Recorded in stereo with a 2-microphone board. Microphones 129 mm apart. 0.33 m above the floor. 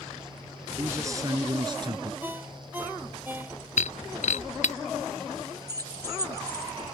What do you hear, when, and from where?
0.8 s a man speaking: 20° right (ahead or behind); by 2.1 s 40° right (ahead or behind)
2.2 s a ringtone: 15° right (ahead or behind)
3.8 s breaking glass: 75° left (ahead or behind)
5.7 s keys jangling: 30° right (ahead or behind)